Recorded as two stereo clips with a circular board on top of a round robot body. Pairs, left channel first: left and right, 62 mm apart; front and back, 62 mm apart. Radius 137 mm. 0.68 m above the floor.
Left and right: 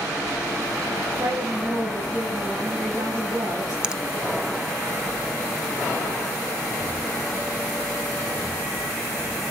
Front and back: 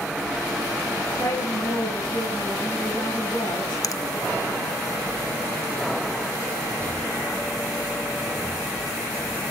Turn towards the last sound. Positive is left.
turn(degrees=-15)